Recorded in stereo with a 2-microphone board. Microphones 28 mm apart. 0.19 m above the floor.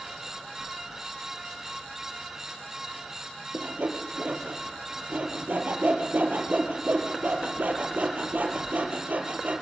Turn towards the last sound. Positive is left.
turn(degrees=-60)  # may be behind; listen again after turning